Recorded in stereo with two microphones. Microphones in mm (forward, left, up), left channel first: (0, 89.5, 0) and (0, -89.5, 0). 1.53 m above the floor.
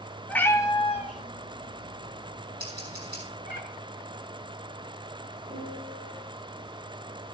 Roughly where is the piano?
Right.